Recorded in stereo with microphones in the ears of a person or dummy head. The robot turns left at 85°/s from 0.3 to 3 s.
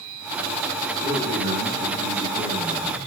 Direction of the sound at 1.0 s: 50° right.